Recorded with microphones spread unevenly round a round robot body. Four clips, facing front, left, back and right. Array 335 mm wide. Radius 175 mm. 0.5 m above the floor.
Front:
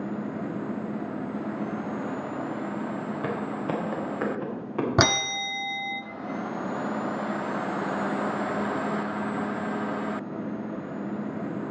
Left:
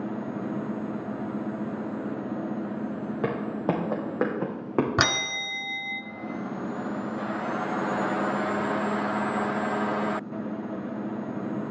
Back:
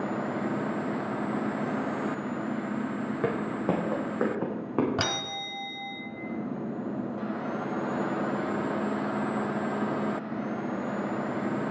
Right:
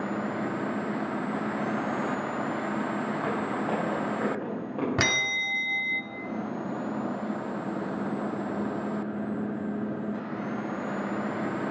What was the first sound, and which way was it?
Footsteps, 140° left.